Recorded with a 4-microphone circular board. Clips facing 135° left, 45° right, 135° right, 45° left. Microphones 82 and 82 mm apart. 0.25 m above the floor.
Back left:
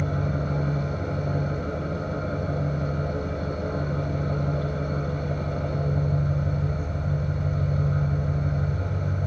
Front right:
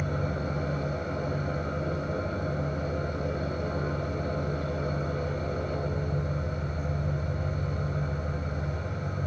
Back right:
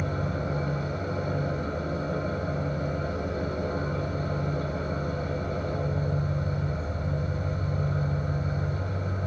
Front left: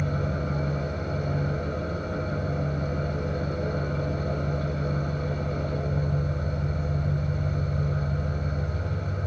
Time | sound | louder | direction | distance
0.0 | an engine running | back left 3 dB, front left 1 dB | 175° left | 4.5 m